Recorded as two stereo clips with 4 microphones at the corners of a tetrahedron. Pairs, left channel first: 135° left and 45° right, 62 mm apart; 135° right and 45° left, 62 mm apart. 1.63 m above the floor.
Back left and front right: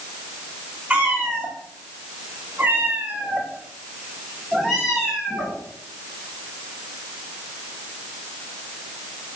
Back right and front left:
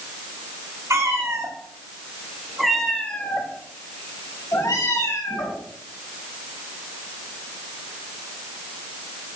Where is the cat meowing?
20° left, 3 m; by 5.6 s 130° right, 4 m.